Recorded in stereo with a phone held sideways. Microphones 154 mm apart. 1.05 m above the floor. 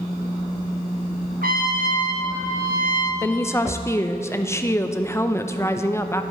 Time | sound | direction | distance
1.4 | a trumpet | 70° right (ahead or behind) | 1.2 m
3.2 | a woman speaking | 15° left (ahead or behind) | 0.5 m